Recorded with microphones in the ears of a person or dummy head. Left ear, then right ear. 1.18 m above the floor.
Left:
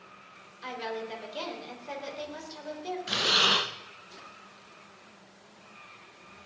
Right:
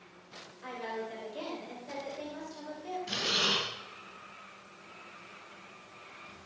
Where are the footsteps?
No footsteps in this recording.